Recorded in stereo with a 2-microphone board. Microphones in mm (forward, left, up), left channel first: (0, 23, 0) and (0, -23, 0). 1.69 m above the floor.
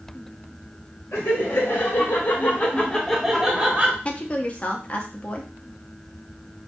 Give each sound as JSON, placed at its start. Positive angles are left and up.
{"t": 1.1, "sound": "laughter", "side_deg": 65, "distance_m": 1.2}
{"t": 4.0, "sound": "a woman speaking", "side_deg": 30, "distance_m": 0.6}